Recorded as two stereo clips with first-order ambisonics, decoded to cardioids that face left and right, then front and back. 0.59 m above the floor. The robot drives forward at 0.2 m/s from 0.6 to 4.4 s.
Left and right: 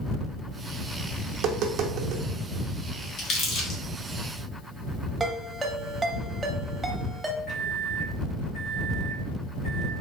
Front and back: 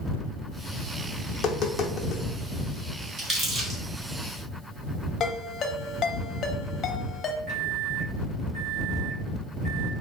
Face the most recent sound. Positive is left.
turn(degrees=155)